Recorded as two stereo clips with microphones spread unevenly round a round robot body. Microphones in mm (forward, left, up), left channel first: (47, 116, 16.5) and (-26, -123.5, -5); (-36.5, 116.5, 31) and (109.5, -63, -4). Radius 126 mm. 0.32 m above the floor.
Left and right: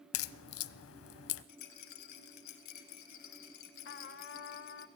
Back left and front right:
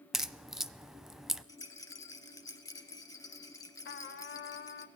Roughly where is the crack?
Ahead left.